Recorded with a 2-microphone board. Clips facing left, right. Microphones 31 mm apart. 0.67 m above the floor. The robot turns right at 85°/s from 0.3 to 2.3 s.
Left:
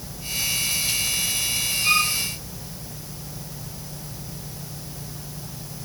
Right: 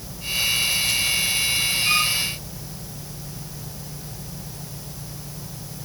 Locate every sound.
1.8 s a violin: 20° left (ahead or behind), 9.5 m; by 2.1 s 5° right (ahead or behind), 9.5 m